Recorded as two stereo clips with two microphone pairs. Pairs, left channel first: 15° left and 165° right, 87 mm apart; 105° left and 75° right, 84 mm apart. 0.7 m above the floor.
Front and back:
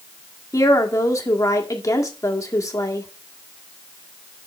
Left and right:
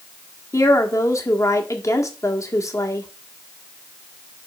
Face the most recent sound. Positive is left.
turn(degrees=60)